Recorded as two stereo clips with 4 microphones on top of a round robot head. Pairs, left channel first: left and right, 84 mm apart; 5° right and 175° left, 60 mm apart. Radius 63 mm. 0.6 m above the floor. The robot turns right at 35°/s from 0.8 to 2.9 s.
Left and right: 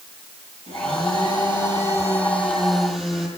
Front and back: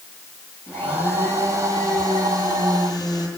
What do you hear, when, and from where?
0.7 s a blender: 70° right, 9.5 m; by 3.3 s straight ahead, 9.5 m